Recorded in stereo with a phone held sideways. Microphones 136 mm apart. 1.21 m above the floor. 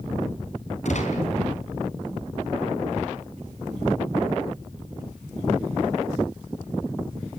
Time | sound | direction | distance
0.8 | a gunshot | 60° left (ahead or behind) | 5 m